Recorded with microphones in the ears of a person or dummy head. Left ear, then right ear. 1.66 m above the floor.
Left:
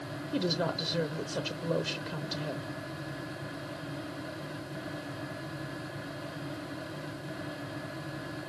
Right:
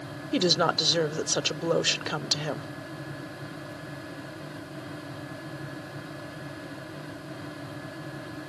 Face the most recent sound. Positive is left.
turn(degrees=-55)  # may be behind; listen again after turning